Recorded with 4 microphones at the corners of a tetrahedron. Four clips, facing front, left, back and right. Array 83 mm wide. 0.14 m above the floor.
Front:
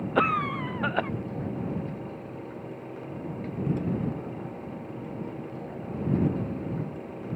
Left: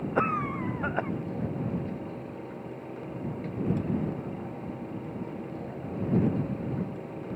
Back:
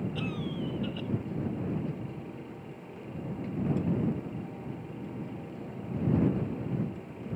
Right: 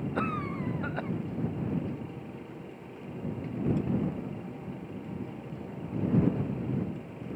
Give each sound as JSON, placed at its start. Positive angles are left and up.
{"t": 0.1, "sound": "a cough", "azimuth_deg": 15}